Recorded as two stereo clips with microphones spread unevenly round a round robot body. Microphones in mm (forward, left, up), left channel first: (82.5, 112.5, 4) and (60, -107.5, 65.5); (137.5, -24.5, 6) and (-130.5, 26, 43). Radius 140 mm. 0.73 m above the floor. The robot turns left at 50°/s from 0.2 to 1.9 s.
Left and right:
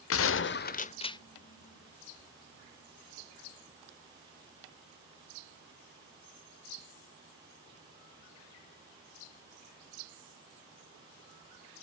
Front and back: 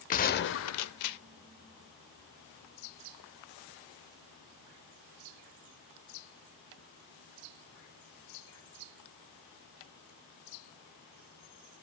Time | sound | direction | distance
0.1 | a gunshot | 55° left | 0.6 m